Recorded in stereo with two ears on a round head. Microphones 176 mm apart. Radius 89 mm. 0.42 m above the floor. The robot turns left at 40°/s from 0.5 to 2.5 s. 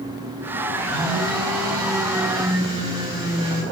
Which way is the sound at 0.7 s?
80° right.